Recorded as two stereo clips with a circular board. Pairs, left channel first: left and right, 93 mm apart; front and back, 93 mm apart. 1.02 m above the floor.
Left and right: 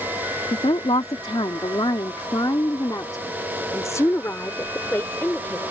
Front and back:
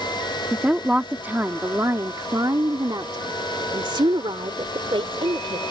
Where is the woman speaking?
100° left; by 5.7 s 160° left.